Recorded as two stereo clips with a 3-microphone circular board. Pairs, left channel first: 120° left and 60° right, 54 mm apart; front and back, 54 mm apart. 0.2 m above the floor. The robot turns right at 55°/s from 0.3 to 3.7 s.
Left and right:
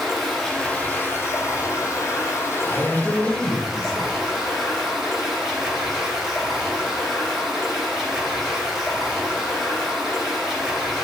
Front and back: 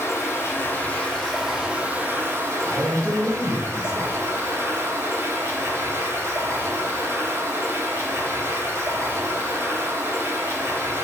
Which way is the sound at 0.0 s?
30° left.